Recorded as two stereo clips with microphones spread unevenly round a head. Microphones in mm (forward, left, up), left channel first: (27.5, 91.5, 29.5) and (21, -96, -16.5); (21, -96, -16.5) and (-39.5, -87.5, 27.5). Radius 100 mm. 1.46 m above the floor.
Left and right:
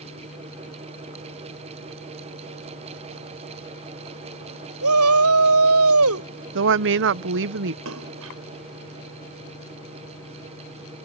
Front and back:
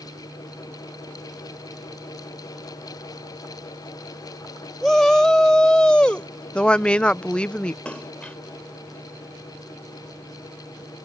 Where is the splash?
85° right.